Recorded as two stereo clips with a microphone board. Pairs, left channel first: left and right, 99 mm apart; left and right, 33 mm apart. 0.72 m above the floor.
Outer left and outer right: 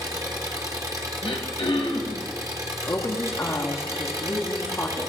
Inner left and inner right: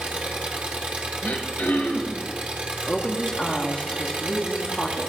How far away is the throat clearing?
About 1.7 m.